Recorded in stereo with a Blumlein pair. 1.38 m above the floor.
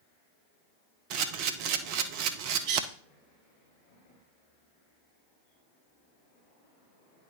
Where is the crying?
No crying in this recording.